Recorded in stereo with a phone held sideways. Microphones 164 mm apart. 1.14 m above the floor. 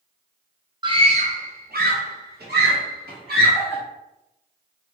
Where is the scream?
30° right (ahead or behind), 0.7 m; by 3.8 s 75° right (ahead or behind), 2 m.